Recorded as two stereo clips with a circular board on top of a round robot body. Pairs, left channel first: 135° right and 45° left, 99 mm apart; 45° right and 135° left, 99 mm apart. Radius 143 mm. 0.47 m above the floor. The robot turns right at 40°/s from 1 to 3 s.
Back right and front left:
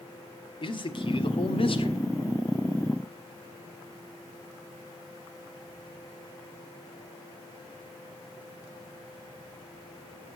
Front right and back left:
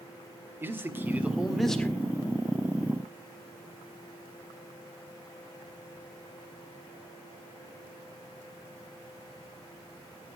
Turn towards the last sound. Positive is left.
turn(degrees=-80)